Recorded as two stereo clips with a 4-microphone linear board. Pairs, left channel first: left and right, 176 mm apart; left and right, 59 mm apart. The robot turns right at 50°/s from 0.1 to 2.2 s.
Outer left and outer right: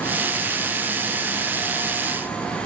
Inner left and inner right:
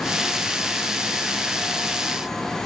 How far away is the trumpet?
I don't hear a trumpet.